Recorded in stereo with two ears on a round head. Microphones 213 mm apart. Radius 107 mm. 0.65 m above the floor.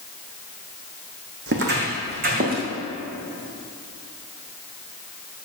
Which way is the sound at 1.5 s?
50° right (ahead or behind).